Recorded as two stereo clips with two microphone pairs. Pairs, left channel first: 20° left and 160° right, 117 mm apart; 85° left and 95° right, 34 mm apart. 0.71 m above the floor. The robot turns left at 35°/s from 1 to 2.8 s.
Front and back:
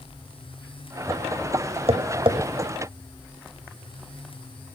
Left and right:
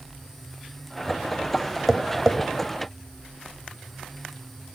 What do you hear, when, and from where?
1.9 s tapping: 175° left, 1.0 m; by 2.4 s 160° left, 1.0 m